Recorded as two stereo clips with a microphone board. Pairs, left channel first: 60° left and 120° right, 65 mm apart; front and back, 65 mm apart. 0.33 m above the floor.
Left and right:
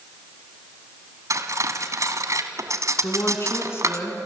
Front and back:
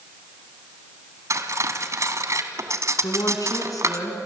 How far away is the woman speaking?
About 4 m.